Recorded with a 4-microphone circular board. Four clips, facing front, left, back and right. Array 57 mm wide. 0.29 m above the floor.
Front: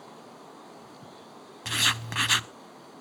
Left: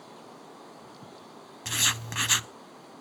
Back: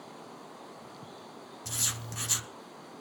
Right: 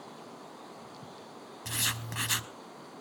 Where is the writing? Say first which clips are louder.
Left 5 dB, front 13 dB; 20° left, 0.5 m.